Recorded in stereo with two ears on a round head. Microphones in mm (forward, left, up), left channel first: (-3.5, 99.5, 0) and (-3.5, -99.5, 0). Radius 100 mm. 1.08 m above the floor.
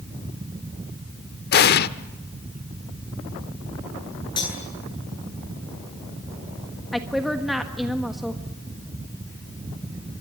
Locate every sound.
1.5 s an explosion: 50° left (ahead or behind), 0.9 m
4.4 s cutlery clinking: 20° left (ahead or behind), 10 m
6.9 s a woman speaking: centre (ahead or behind), 1.4 m